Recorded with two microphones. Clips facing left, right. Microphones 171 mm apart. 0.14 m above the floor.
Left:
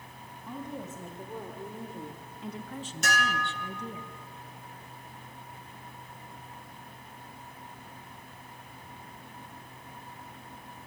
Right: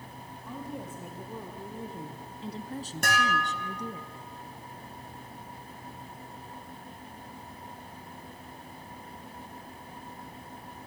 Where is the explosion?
No explosion in this recording.